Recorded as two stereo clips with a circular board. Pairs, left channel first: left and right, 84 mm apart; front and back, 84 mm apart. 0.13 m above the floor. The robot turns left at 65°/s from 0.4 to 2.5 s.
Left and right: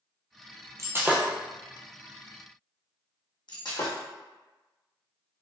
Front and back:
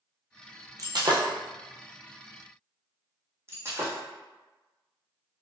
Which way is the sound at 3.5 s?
120° left.